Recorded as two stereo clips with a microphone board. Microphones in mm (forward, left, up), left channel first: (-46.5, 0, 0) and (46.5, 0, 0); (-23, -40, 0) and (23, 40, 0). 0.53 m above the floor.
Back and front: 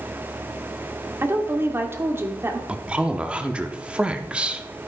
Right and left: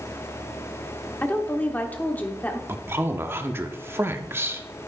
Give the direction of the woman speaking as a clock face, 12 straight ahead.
2 o'clock.